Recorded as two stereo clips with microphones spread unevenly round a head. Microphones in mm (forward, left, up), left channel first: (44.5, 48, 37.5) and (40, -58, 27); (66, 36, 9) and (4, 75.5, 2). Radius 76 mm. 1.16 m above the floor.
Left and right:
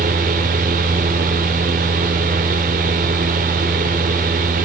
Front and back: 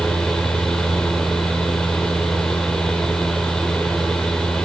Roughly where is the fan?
Behind right.